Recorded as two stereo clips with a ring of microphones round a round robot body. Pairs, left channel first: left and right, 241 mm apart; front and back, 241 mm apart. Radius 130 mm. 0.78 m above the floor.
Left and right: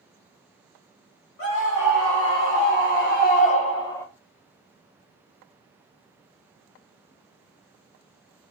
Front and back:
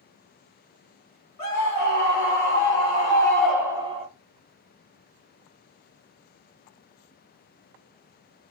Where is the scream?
45° left, 1.5 m; by 4.1 s 160° left, 0.7 m.